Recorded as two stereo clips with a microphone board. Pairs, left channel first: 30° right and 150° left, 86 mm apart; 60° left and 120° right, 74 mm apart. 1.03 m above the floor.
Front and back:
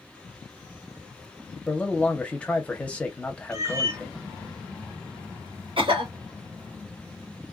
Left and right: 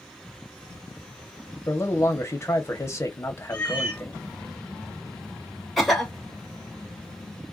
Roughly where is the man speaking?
Ahead left.